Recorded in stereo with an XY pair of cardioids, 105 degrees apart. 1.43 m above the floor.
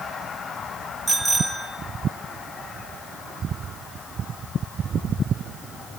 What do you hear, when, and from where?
1.1 s a bicycle bell: 20° right, 5 m